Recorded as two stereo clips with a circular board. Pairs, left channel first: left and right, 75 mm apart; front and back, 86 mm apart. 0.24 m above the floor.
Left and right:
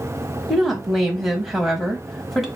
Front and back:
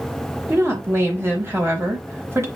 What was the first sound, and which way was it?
A woman speaking, 175° right.